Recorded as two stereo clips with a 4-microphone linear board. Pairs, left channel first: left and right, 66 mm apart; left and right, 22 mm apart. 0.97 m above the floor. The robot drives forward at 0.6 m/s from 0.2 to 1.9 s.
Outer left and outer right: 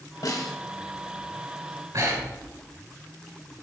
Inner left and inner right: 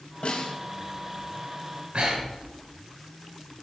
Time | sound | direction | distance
0.2 | a snare drum | 65° left (ahead or behind) | 2 m
1.9 | breathing | 65° right (ahead or behind) | 3 m